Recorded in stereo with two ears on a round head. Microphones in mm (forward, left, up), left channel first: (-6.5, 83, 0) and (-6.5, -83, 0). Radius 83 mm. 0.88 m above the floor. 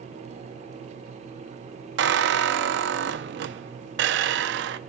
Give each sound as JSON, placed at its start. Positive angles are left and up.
{"t": 2.0, "sound": "a squeak", "side_deg": -70, "distance_m": 0.5}